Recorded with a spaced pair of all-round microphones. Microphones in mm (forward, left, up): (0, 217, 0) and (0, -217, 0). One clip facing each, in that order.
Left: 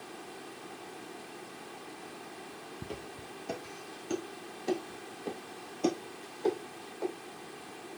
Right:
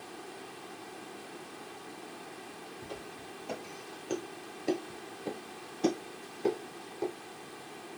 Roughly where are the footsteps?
Left.